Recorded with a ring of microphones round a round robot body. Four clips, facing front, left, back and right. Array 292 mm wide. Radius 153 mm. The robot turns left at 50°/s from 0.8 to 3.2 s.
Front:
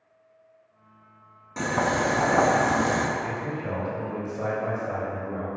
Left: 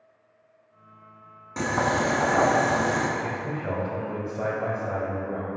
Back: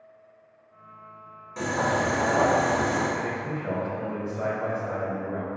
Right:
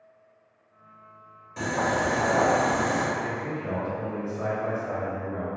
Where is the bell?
No bell in this recording.